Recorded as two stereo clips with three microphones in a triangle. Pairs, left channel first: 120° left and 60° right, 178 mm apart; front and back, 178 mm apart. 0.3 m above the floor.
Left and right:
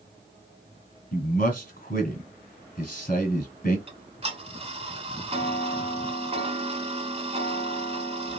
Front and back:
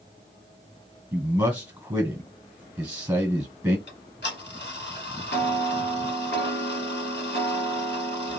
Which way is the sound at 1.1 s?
110° left.